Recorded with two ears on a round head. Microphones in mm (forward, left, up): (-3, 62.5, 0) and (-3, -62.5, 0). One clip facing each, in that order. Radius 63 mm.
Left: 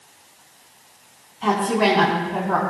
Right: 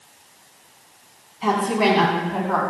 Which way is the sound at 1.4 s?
10° right (ahead or behind).